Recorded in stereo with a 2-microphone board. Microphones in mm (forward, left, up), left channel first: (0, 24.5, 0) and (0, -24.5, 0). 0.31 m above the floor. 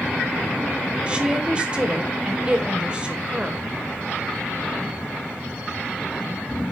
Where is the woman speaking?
20° right (ahead or behind), 1.0 m.